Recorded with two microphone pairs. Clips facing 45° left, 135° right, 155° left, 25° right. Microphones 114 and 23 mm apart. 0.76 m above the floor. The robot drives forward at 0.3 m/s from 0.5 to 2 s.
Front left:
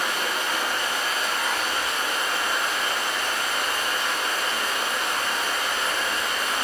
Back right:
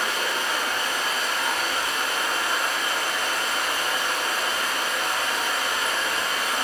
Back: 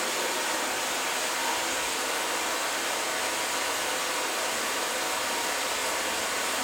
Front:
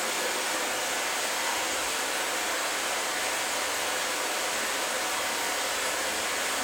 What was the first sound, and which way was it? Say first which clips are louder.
Running water: even, back 1 dB; 120° left.